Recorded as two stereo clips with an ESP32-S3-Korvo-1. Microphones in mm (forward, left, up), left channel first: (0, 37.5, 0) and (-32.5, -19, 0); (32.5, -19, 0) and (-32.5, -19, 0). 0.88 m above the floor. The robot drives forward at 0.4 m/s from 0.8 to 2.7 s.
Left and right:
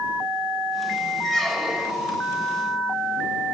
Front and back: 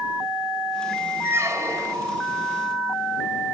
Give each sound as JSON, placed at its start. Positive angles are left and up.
{"t": 1.2, "sound": "a squeak", "azimuth_deg": 140, "distance_m": 0.5}